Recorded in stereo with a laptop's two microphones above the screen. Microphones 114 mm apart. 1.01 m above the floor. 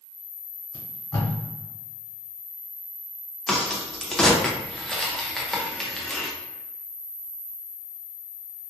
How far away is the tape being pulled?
About 1.1 m.